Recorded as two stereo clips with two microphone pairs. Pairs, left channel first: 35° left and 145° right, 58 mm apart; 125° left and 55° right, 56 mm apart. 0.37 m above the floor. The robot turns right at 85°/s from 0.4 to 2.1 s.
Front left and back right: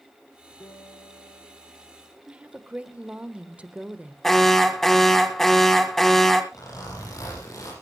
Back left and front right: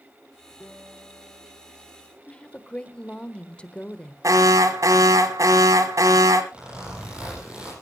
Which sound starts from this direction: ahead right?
An alarm, at 4.2 s.